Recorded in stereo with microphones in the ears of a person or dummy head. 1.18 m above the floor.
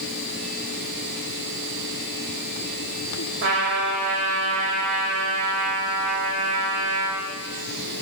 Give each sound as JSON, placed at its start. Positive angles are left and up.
{"t": 3.4, "sound": "a trumpet", "side_deg": -80, "distance_m": 2.5}